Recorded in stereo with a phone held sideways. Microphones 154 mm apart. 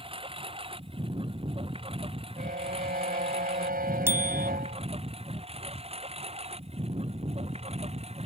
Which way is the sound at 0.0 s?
35° right (ahead or behind).